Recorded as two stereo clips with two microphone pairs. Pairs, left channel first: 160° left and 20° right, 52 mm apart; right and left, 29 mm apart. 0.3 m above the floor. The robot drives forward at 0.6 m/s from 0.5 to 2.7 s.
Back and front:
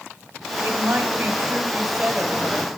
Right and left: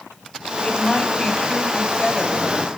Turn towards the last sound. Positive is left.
turn(degrees=-85)